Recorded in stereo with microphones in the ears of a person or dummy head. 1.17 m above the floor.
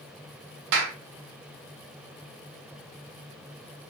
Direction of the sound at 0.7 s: 70° right (ahead or behind).